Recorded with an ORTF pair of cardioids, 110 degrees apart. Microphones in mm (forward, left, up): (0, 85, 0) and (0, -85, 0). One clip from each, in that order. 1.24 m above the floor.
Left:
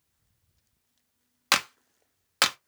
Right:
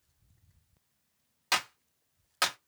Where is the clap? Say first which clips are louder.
Left 5 dB; 45° left, 0.7 m.